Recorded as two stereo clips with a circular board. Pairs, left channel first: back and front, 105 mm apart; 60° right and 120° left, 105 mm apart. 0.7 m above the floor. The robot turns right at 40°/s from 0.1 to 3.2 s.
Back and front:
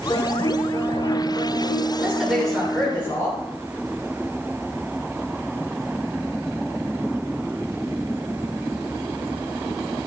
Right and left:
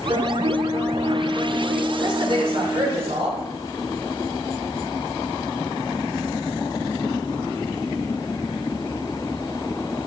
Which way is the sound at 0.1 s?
130° left.